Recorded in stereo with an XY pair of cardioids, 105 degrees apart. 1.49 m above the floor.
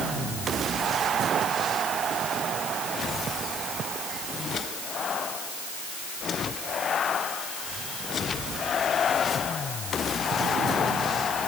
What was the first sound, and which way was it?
Only background noise.